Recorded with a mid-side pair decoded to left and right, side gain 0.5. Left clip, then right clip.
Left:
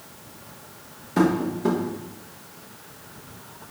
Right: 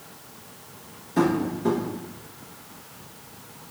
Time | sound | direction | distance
1.2 | tapping | 35° left | 1.2 m